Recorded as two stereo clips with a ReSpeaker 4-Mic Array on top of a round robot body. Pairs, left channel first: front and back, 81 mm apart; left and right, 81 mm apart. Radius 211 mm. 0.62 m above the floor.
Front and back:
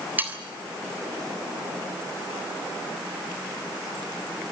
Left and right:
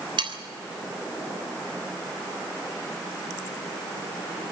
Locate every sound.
0.2 s sawing: 110° right, 3.5 m